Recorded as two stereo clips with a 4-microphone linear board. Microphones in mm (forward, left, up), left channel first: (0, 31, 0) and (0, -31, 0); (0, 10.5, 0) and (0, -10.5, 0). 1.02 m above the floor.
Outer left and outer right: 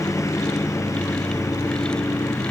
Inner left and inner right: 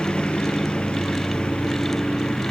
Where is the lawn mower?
60° left (ahead or behind).